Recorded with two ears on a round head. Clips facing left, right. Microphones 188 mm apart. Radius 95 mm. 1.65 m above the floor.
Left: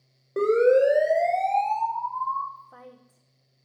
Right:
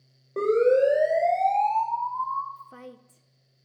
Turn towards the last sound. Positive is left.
turn(degrees=-30)  # may be behind; listen again after turning